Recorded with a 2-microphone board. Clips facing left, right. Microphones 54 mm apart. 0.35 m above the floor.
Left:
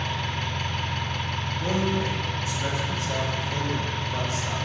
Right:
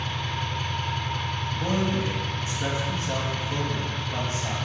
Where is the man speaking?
40° right (ahead or behind), 2 m.